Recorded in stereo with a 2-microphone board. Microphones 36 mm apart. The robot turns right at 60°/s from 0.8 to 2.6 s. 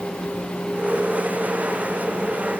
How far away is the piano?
No piano in this recording.